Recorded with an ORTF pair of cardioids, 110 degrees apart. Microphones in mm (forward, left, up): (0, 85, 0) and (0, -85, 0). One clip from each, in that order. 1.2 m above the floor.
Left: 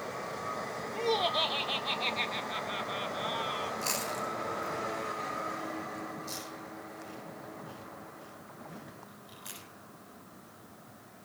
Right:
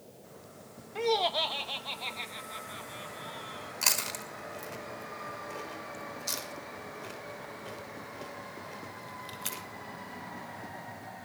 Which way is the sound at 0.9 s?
25° right.